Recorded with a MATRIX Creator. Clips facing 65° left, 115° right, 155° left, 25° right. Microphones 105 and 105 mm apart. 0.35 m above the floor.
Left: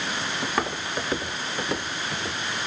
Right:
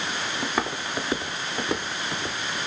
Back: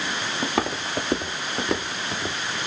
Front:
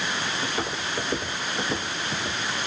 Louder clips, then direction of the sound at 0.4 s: Even, back 4 dB; 160° left.